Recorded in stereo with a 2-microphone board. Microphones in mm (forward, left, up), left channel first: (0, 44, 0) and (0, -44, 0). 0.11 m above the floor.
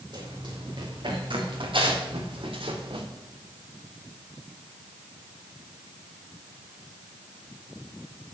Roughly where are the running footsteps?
Right.